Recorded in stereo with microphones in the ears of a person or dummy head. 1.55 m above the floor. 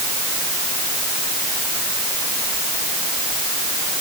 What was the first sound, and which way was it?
Only background noise.